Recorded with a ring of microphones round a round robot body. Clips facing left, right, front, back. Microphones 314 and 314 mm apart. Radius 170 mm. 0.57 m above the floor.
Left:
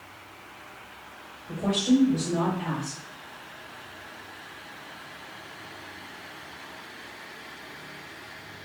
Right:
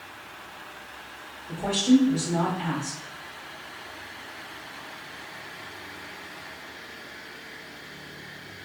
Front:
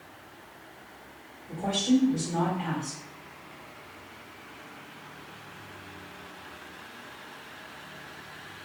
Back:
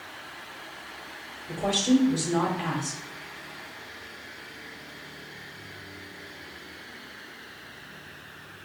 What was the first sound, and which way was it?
A woman speaking, 160° right.